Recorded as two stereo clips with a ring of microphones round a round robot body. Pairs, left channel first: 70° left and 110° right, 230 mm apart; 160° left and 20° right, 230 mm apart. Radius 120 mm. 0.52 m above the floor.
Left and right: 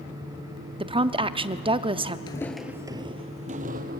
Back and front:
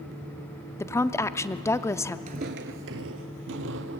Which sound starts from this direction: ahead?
Footsteps, at 2.3 s.